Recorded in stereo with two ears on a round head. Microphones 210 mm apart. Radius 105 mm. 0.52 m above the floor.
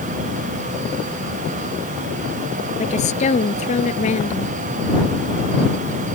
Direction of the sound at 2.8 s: 30° left (ahead or behind).